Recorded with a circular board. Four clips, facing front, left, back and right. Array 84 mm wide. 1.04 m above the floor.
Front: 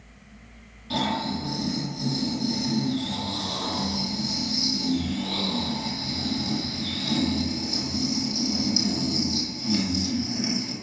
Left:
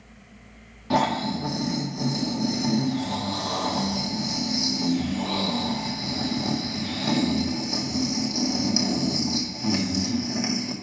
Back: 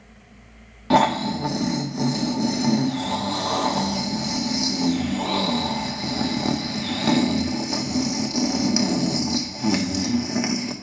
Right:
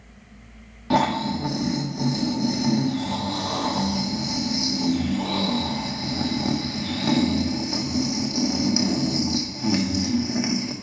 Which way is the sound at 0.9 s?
165° right.